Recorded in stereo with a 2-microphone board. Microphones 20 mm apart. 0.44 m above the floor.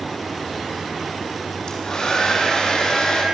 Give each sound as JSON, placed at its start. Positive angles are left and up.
{"t": 1.7, "sound": "a hair dryer", "side_deg": 40, "distance_m": 7.5}